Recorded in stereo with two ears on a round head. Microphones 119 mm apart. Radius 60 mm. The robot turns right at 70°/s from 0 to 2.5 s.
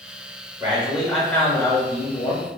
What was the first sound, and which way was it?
A man speaking, 35° right.